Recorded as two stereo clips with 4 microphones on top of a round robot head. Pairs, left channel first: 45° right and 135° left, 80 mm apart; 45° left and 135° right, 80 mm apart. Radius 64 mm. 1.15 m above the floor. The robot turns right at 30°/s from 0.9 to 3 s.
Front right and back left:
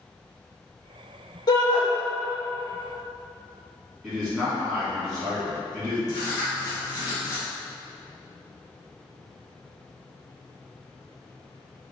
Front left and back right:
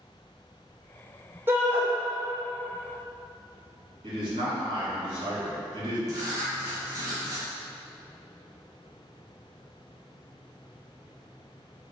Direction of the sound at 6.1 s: 90° right.